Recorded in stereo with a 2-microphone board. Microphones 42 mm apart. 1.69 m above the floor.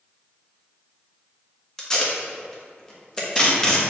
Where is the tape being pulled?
15° left (ahead or behind), 1.2 m.